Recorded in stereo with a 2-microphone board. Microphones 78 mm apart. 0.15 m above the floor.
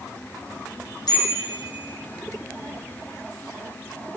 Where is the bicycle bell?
60° left (ahead or behind), 4.5 m.